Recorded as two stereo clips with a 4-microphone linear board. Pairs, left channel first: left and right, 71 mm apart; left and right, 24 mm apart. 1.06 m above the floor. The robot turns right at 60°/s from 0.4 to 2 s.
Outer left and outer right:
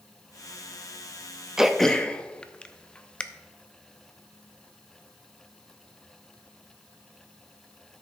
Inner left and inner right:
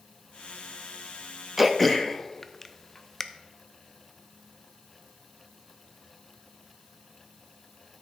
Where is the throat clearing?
10° right (ahead or behind), 0.5 m; by 3.2 s 15° left (ahead or behind), 0.5 m.